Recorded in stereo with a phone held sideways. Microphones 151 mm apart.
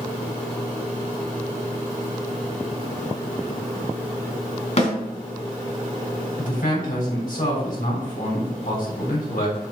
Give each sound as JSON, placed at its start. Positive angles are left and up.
{"t": 4.8, "sound": "a snare drum", "side_deg": 50, "distance_m": 3.5}
{"t": 6.4, "sound": "a man speaking", "side_deg": 70, "distance_m": 4.0}